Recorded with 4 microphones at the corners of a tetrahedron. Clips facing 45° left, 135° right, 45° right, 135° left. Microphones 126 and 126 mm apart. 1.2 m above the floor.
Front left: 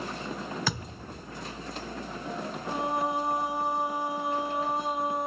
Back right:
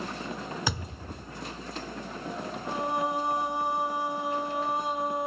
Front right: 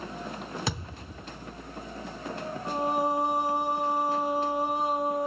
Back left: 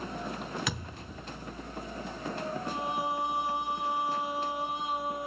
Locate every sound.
0.7 s a thud: 75° right, 0.9 m
2.6 s singing: 45° right, 0.5 m